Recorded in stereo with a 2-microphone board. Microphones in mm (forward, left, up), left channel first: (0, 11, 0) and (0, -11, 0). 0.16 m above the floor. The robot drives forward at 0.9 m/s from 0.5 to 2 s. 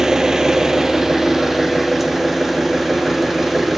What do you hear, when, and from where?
0.0 s an engine running: 25° right (ahead or behind), 1.5 m; by 3.8 s 15° right (ahead or behind), 2.5 m